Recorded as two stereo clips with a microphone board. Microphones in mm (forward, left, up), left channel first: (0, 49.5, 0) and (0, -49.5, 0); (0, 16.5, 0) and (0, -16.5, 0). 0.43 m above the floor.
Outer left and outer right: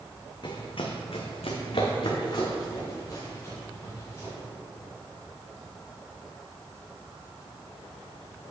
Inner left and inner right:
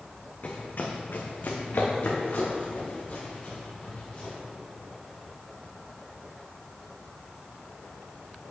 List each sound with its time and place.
0.4 s running footsteps: 50° left (ahead or behind), 1.6 m; by 4.3 s 30° left (ahead or behind), 5.5 m